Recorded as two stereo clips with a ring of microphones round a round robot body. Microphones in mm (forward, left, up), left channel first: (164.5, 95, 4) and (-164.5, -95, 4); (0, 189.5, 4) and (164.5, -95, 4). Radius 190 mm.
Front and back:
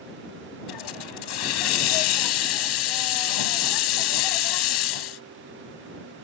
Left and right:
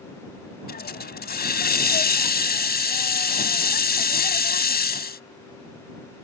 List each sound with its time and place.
0.7 s a hiss: 60° left